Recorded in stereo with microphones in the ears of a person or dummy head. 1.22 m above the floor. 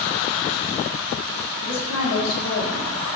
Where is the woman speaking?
75° left (ahead or behind), 3 m.